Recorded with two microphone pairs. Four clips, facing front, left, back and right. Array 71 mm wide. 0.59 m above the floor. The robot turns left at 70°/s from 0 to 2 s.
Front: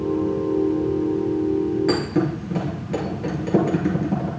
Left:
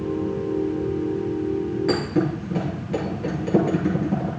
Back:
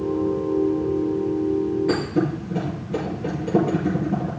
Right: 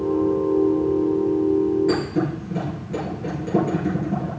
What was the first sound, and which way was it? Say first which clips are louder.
A thud: even, front 1 dB; 20° left.